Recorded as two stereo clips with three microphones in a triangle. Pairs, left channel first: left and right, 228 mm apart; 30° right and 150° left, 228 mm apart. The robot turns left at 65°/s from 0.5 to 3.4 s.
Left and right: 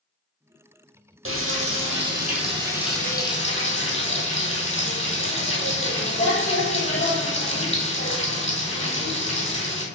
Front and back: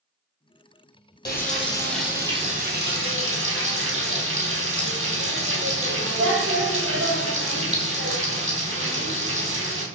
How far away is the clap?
No clap in this recording.